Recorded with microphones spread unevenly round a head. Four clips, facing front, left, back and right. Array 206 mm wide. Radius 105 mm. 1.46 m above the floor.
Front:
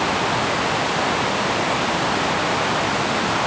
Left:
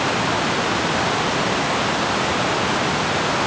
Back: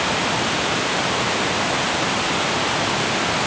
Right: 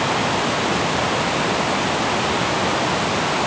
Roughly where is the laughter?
I don't hear laughter.